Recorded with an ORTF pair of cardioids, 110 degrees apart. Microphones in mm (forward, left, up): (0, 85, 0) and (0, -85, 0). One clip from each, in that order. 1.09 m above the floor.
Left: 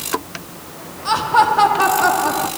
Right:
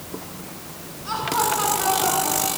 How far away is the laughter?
About 1.7 m.